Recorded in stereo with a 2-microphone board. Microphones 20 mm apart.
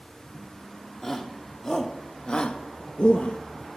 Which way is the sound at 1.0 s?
20° left (ahead or behind).